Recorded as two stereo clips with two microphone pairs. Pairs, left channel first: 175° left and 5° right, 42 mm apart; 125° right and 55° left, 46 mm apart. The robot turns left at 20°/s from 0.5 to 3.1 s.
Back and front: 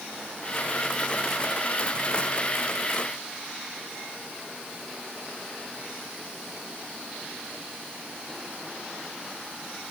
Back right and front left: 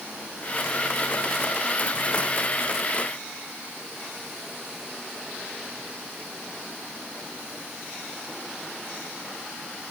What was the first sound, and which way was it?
Only background noise.